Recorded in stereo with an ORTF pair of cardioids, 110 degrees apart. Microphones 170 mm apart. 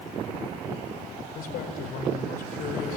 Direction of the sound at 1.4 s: 65° left.